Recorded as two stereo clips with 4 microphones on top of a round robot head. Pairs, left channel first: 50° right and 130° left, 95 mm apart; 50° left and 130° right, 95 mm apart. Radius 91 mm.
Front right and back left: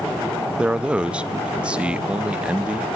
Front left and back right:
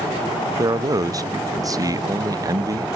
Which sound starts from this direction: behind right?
A man speaking, at 0.6 s.